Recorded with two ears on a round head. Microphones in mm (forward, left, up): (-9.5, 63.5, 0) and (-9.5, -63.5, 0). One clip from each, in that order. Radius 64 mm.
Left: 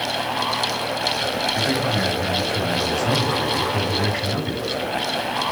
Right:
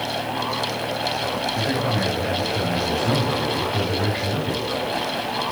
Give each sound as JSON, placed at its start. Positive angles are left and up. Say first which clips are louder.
{"t": 1.6, "sound": "a man speaking", "louder": "left 2 dB", "side_deg": 90, "distance_m": 9.5}